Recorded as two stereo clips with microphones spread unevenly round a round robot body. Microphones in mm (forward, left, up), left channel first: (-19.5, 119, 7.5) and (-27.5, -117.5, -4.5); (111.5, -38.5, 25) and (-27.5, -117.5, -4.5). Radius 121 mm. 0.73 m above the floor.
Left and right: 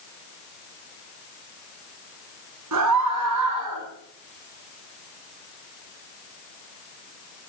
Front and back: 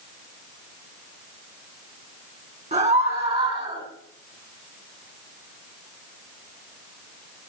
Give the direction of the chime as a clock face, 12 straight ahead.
No chime in this recording.